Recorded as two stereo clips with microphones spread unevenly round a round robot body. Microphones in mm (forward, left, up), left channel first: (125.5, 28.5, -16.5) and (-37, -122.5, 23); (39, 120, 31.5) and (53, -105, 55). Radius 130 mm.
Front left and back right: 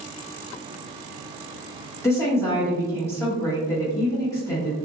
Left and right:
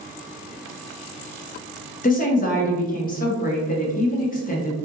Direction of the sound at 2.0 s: 100° left.